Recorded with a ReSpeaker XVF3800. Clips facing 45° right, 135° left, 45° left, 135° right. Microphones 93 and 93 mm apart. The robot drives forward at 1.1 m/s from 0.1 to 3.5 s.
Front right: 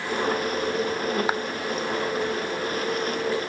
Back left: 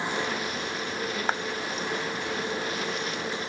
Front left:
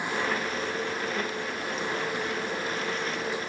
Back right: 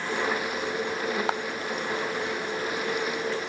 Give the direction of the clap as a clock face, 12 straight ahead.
4 o'clock.